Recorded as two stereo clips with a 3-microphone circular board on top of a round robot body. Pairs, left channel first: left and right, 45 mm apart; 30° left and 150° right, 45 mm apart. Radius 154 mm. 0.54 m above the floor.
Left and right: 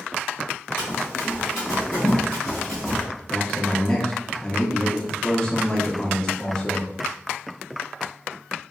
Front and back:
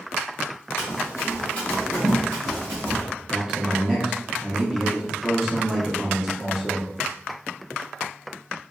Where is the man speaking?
145° left, 0.8 m.